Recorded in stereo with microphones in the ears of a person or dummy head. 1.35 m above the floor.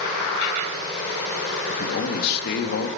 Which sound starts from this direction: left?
A man speaking, at 1.7 s.